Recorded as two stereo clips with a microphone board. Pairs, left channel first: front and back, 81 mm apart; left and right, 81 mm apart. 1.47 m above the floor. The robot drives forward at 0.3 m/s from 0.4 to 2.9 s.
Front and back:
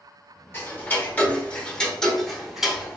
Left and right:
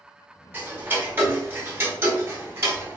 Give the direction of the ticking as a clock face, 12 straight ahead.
1 o'clock.